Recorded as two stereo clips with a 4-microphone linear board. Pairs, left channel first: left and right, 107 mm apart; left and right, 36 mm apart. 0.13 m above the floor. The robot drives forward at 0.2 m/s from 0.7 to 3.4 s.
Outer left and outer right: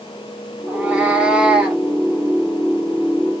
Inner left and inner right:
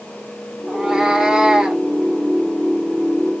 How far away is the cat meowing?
About 1.0 m.